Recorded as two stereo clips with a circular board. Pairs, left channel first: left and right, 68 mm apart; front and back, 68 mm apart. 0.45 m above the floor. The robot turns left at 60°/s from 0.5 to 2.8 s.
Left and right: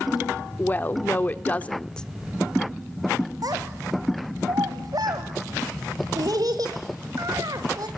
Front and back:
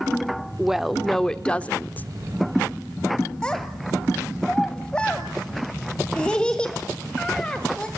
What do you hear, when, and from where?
0.6 s a woman speaking: 110° left, 0.8 m; by 2.1 s 20° left, 0.8 m
3.4 s a child speaking: 75° right, 1.5 m